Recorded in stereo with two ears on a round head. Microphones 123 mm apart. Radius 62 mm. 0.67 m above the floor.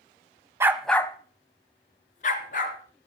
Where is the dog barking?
20° right (ahead or behind), 1.0 m; by 2.8 s 65° left (ahead or behind), 3 m.